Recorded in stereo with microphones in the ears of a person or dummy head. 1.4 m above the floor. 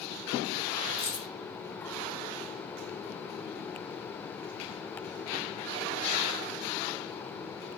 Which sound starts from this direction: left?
Keys jangling, at 1.0 s.